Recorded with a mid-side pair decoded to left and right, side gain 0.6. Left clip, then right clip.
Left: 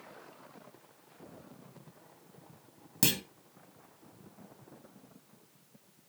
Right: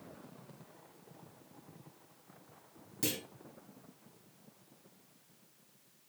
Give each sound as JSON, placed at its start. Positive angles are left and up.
{"t": 3.0, "sound": "a clunk", "azimuth_deg": 65, "distance_m": 1.6}